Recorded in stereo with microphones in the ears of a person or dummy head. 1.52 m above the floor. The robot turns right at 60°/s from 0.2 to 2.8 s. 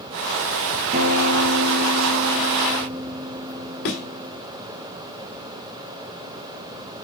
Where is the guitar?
135° right, 0.7 m; by 4.4 s 20° right, 0.7 m.